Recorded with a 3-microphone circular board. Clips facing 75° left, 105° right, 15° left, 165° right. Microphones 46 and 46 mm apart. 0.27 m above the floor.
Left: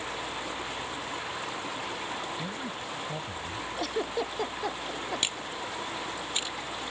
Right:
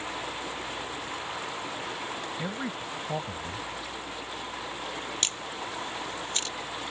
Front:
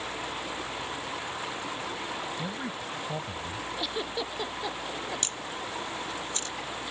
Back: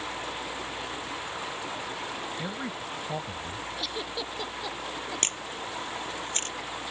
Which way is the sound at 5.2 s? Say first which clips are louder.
Even, back 1 dB; 150° left.